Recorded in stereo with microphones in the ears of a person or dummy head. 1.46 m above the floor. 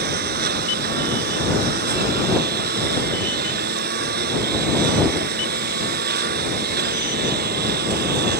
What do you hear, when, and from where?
0.0 s a lawn mower: 45° right (ahead or behind)